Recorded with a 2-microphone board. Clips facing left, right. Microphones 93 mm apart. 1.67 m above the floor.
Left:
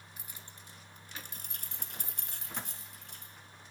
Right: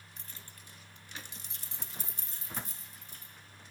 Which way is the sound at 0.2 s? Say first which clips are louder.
Left 1 dB; 5° left (ahead or behind).